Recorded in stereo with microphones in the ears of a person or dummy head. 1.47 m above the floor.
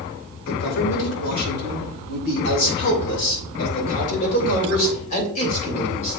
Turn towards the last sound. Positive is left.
turn(degrees=45)  # may be behind; listen again after turning